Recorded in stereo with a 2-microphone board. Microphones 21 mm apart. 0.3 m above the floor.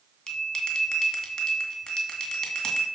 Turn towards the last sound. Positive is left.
turn(degrees=45)  # may be behind; listen again after turning